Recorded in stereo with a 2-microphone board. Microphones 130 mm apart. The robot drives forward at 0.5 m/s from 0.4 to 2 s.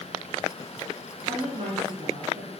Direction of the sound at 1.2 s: 65° right (ahead or behind).